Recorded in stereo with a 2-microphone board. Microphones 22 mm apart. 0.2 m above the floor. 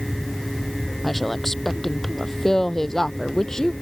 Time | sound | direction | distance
1.0 | a woman speaking | 10° left (ahead or behind) | ?